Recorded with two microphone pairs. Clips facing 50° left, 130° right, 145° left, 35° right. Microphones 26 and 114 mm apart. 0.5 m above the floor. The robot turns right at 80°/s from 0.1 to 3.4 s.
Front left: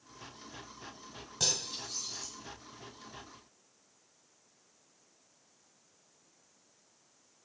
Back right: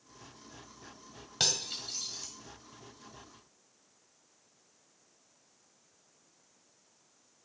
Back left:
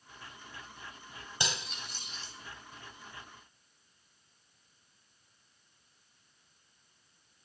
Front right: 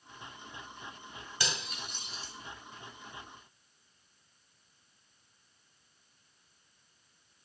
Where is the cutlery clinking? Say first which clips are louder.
Back right 2 dB, even; 150° right, 1.6 m; by 2.3 s 80° right, 1.6 m.